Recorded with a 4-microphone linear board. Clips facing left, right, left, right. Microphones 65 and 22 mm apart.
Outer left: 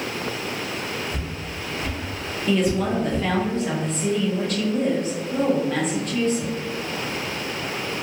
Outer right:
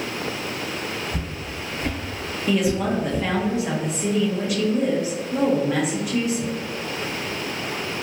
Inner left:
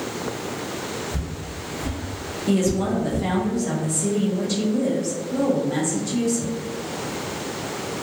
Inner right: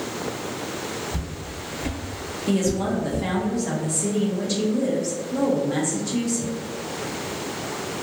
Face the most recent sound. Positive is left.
turn(degrees=-10)  # may be behind; listen again after turning